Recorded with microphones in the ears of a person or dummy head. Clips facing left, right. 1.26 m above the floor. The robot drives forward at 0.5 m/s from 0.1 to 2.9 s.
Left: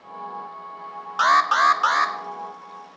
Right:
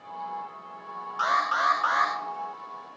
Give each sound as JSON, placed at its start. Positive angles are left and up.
{"t": 1.2, "sound": "an alarm", "side_deg": 70, "distance_m": 1.2}